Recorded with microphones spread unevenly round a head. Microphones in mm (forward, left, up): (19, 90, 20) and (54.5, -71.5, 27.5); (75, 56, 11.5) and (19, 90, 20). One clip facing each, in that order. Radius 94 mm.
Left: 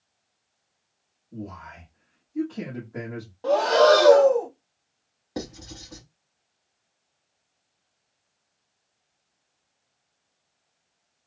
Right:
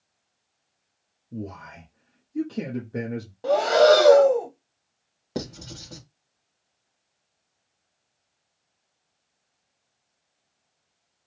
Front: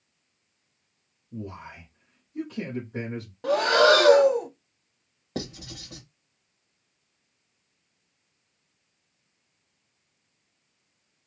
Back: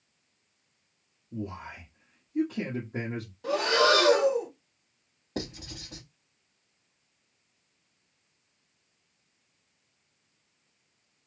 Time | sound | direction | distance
1.3 | a man speaking | 130° right | 0.8 m
3.4 | breathing | 5° right | 0.7 m
5.3 | writing | 65° right | 1.7 m